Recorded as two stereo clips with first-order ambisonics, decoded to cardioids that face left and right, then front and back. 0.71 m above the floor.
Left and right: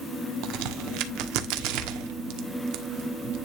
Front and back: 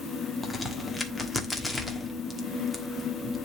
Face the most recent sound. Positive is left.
turn(degrees=-85)